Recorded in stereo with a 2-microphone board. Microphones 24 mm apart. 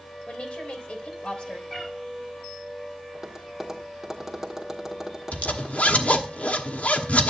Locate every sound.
0.2 s a woman speaking: 55° left (ahead or behind), 3 m
1.7 s a cat meowing: 15° left (ahead or behind), 4.5 m
3.1 s tapping: 10° right (ahead or behind), 1.5 m
5.3 s a zipper: 80° left, 1.1 m